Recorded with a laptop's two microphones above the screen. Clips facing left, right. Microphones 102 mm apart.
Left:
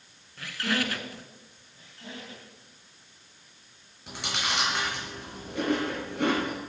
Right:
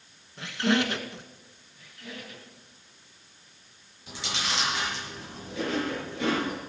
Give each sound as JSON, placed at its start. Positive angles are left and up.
{"t": 0.4, "sound": "a squeak", "side_deg": -20, "distance_m": 1.3}
{"t": 1.8, "sound": "a squeak", "side_deg": 30, "distance_m": 3.0}
{"t": 4.1, "sound": "chewing", "side_deg": 60, "distance_m": 4.5}